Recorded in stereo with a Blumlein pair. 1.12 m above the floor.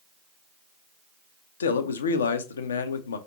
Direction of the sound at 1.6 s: 65° left.